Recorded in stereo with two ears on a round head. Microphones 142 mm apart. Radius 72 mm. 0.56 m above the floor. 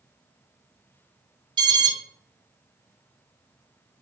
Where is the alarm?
30° right (ahead or behind), 2 m.